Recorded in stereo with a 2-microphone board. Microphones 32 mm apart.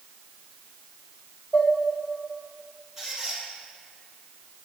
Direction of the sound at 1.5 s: 50° left (ahead or behind).